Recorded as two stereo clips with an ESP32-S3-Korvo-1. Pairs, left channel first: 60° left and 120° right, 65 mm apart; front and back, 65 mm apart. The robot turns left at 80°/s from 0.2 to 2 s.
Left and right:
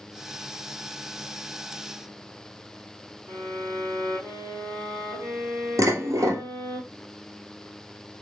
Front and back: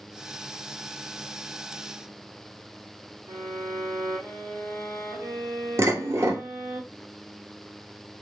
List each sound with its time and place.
3.3 s a violin: 155° right, 3 m
5.8 s dishes clattering: 145° right, 1.6 m